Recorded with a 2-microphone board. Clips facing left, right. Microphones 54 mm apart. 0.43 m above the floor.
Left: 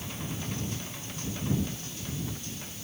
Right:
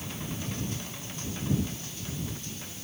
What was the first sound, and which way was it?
Only background noise.